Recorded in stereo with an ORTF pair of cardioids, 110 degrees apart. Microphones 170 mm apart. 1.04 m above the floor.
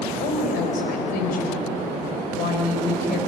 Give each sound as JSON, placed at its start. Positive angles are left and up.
{"t": 0.2, "sound": "a woman speaking", "azimuth_deg": 65, "distance_m": 4.0}